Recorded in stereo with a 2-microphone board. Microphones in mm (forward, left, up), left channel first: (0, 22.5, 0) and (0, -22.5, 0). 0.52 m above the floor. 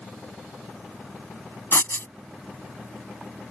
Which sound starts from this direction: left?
Writing, at 1.7 s.